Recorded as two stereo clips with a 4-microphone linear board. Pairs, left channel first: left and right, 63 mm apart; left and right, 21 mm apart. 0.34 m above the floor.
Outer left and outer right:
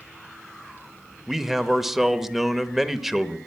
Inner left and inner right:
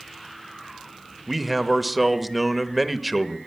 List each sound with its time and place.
1.3 s a man speaking: 5° right (ahead or behind), 0.8 m